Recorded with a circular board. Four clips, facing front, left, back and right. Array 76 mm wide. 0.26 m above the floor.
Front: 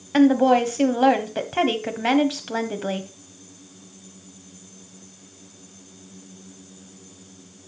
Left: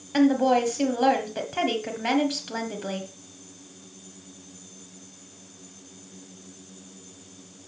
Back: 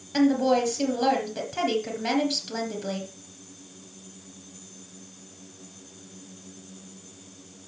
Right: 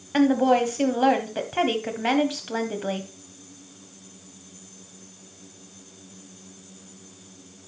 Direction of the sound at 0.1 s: 15° right.